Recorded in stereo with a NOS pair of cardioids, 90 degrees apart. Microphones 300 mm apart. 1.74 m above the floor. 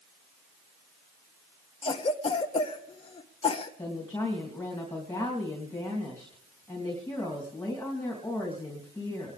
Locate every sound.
1.8 s a cough: 20° left, 1.1 m
3.8 s a woman speaking: 10° left, 3 m